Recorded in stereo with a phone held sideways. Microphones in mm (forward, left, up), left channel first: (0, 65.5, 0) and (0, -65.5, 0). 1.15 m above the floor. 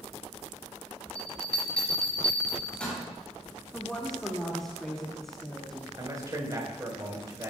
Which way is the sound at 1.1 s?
10° left (ahead or behind).